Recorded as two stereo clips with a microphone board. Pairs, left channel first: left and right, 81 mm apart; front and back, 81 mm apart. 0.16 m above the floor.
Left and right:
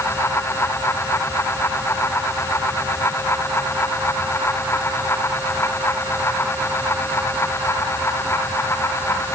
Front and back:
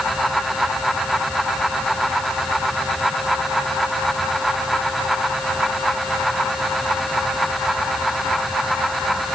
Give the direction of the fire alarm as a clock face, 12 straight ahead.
I don't hear a fire alarm.